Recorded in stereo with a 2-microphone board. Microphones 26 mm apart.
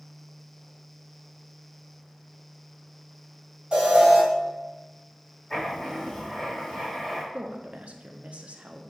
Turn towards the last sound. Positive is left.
turn(degrees=-65)  # may be behind; listen again after turning